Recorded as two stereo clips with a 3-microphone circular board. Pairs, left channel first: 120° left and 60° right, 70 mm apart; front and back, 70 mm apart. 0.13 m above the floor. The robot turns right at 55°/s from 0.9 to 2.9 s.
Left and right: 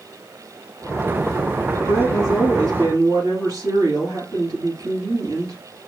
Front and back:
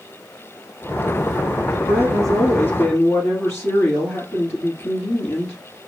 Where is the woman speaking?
100° right, 3 m; by 5.6 s 45° right, 3 m.